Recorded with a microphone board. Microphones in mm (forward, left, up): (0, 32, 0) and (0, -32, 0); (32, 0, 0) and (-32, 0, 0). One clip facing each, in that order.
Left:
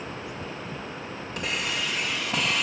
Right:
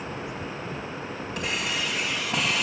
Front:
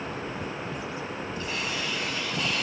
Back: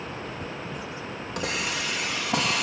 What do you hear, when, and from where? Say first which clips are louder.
1.4 s a hiss: even, back 4 dB; straight behind, 5 m